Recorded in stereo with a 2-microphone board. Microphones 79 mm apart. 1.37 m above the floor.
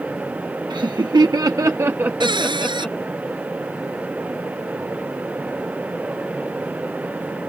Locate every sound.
0.7 s laughter: 70° right (ahead or behind); by 3.0 s 20° left (ahead or behind)
2.2 s a cupboard door: 75° right (ahead or behind)